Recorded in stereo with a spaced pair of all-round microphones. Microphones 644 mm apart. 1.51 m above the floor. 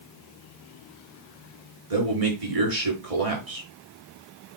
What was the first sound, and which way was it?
A man speaking, 55° right (ahead or behind).